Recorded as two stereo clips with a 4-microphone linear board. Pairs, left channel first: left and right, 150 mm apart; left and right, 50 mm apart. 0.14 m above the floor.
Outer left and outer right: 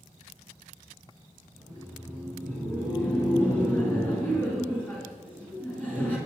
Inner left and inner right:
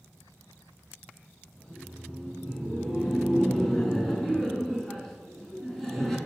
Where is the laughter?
10° left (ahead or behind), 1.5 m.